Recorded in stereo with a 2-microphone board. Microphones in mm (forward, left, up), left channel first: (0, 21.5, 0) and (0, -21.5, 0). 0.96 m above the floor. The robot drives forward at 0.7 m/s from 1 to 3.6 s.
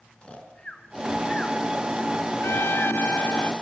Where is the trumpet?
65° left (ahead or behind), 0.7 m; by 3.5 s 50° left (ahead or behind), 0.8 m.